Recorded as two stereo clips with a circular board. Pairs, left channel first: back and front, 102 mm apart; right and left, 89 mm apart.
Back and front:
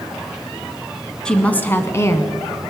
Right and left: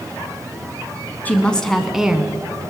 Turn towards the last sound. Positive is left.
turn(degrees=155)